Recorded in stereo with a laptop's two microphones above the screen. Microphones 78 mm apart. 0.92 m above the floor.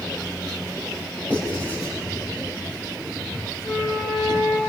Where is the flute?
75° left (ahead or behind), 8.5 m.